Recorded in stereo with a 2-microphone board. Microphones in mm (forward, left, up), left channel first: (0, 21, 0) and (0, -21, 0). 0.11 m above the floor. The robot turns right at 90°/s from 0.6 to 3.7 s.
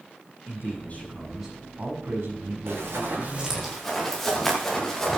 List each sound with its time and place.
0.5 s a man speaking: 115° left, 6.5 m; by 3.7 s 30° left, 6.5 m
2.7 s running footsteps: 85° right, 7.5 m; by 5.2 s 10° left (ahead or behind), 5 m